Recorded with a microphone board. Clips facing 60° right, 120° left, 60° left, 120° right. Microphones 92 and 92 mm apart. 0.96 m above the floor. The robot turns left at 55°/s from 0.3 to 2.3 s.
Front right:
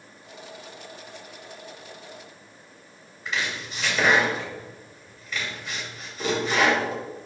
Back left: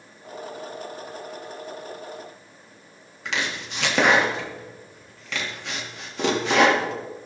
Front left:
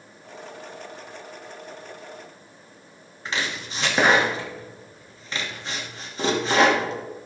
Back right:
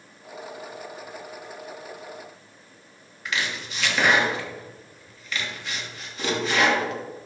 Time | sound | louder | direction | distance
3.2 | chopping | back left 1 dB, even | 115° left | 1.4 m